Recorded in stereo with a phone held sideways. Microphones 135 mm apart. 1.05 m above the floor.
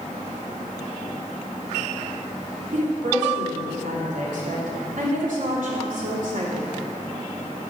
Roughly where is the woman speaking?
Right.